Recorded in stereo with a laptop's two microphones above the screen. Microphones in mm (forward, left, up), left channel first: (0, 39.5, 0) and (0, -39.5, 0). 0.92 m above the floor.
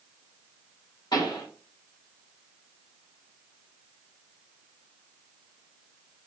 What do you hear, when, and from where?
1.1 s a pop: 60° left (ahead or behind), 2 m